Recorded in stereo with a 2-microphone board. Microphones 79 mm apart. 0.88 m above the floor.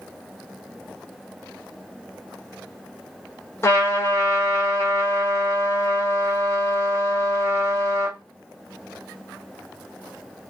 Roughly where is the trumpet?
Left.